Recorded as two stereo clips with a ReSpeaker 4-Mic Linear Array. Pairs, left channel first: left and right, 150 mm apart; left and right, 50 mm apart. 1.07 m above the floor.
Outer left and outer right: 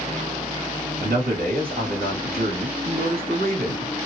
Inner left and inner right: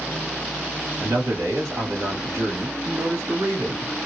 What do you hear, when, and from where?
1.0 s a man speaking: 80° right, 1.6 m